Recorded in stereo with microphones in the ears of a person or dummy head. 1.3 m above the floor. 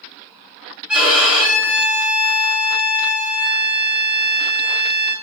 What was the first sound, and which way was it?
A violin, 5° right (ahead or behind).